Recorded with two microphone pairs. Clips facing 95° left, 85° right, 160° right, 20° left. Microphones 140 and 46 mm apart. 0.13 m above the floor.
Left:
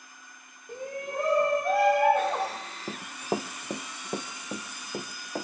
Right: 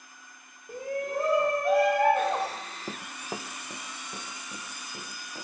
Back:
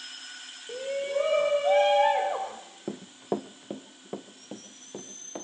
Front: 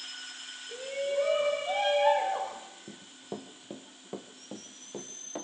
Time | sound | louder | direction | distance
0.7 | a shout | right 4 dB, back 2 dB | 170° right | 6.5 m
2.9 | running footsteps | left 8 dB, back 12 dB | 170° right | 0.6 m